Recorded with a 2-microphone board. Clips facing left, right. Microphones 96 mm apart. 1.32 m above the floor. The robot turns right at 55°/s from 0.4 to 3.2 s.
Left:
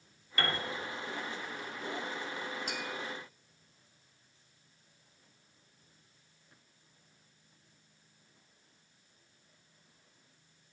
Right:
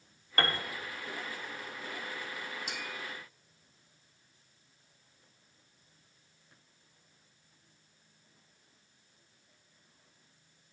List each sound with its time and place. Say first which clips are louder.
0.4 s a piano: right 2 dB; 50° right (ahead or behind), 0.9 m; by 0.6 s 40° right (ahead or behind), 0.9 m
2.7 s tapping: left 3 dB; 45° left (ahead or behind), 1.5 m